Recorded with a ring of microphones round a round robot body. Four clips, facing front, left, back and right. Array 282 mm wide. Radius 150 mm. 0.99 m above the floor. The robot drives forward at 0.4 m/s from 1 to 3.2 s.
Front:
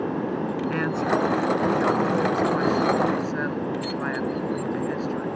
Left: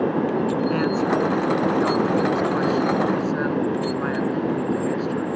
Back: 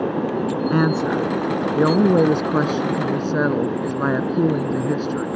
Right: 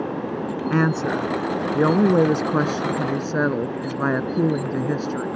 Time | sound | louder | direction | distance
0.7 | a woman speaking | left 1 dB, back 5 dB | 140° right | ?